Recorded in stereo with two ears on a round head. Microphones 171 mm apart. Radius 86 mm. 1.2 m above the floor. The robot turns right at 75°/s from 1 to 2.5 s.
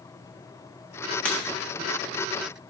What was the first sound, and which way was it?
Breaking glass, 5° left (ahead or behind).